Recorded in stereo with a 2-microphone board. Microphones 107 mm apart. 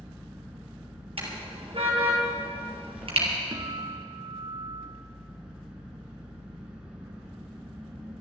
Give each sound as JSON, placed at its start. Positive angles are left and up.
{"t": 0.0, "sound": "an engine running", "side_deg": -10, "distance_m": 4.0}
{"t": 1.2, "sound": "a car horn", "side_deg": -60, "distance_m": 4.0}
{"t": 3.5, "sound": "a guitar", "side_deg": -45, "distance_m": 1.6}